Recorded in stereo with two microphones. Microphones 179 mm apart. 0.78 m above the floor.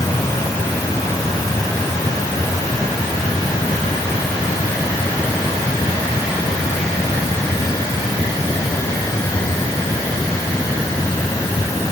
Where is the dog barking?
I don't hear a dog barking.